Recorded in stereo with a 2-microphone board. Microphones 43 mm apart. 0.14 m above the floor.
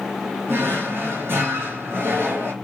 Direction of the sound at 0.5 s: 65° right (ahead or behind).